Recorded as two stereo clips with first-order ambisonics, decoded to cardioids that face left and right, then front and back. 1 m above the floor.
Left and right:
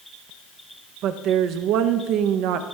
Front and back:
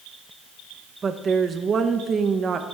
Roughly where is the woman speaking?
Behind right.